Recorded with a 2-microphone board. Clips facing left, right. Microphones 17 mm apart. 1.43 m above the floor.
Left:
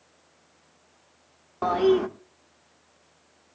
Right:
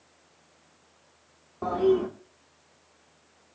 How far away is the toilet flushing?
About 1.3 m.